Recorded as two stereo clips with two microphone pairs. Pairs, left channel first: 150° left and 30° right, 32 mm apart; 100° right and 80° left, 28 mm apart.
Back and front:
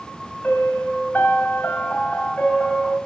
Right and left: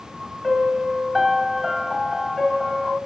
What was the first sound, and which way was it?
A piano, 170° left.